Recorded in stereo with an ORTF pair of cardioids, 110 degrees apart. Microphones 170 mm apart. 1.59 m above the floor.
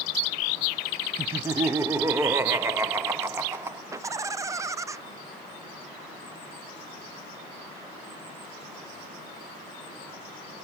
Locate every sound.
1.2 s laughter: 15° right, 0.8 m
3.9 s laughter: 20° right, 0.6 m